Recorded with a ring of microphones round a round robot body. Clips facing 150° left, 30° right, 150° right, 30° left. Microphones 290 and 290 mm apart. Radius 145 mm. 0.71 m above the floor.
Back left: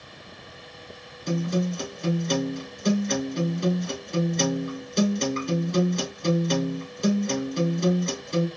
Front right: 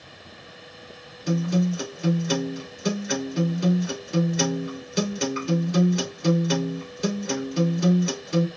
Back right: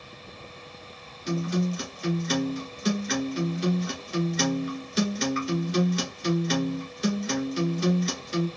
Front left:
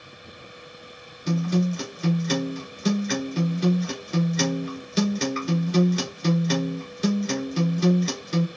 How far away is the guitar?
About 1.8 m.